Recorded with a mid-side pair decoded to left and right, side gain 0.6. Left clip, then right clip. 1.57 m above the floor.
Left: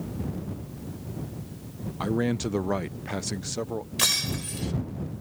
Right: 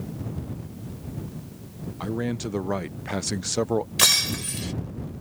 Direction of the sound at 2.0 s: 15° left.